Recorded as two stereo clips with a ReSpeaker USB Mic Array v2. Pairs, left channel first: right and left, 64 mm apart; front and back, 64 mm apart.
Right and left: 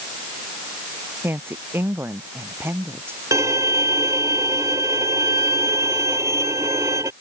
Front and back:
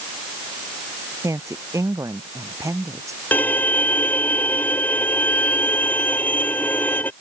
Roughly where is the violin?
Ahead left.